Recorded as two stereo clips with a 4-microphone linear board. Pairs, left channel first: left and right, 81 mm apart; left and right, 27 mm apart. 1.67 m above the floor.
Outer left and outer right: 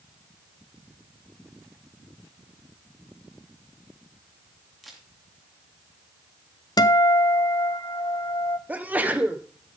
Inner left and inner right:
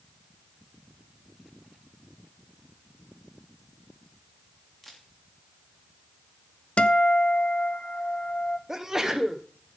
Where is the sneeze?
20° right (ahead or behind), 1.4 m.